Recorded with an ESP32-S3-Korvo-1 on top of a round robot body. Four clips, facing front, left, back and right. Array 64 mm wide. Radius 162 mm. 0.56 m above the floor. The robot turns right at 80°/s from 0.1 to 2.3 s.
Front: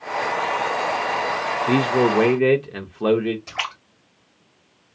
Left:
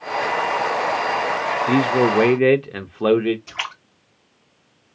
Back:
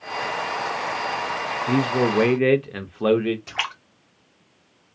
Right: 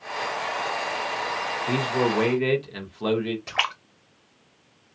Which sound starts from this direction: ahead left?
A man speaking, at 1.7 s.